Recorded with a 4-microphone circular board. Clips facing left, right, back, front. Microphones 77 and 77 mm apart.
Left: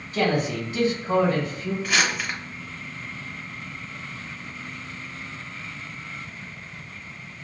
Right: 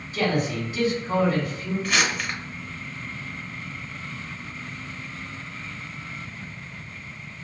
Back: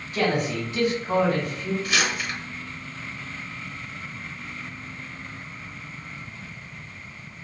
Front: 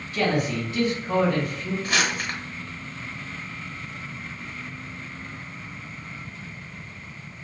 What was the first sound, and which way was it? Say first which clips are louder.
A man speaking: left 1 dB, even; 115° left.